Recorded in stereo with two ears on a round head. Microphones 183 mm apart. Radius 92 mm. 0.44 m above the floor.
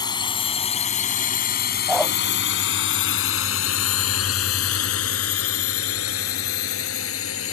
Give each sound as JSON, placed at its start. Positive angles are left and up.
{"t": 0.0, "sound": "a drone", "side_deg": 20}
{"t": 1.9, "sound": "a dog barking", "side_deg": 0}